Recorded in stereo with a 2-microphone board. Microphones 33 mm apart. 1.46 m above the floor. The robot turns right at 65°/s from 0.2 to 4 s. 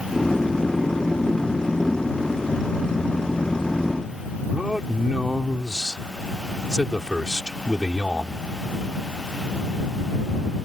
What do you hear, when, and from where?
4.5 s a man speaking: 20° right (ahead or behind)